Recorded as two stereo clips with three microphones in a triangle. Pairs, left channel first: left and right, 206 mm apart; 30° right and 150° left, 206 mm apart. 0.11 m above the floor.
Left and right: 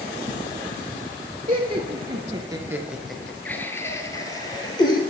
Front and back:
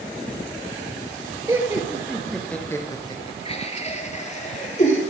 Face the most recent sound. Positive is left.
turn(degrees=20)